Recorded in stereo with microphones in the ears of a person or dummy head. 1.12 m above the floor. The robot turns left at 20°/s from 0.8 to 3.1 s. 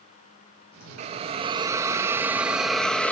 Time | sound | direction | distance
1.0 | a hiss | 140° right | 0.7 m